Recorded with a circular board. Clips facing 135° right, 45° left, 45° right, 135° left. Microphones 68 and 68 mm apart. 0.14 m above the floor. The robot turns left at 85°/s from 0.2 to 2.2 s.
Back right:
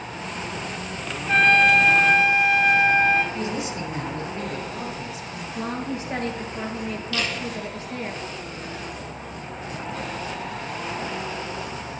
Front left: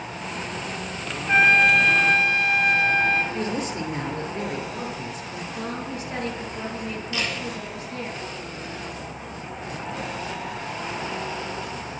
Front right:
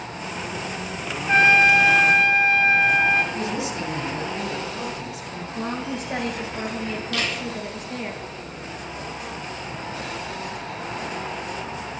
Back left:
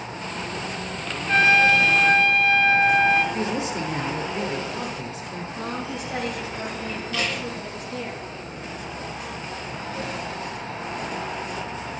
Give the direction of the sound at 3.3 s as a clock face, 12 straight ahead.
9 o'clock.